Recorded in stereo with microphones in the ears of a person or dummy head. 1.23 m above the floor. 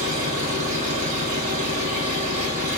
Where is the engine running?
45° right (ahead or behind), 3 m.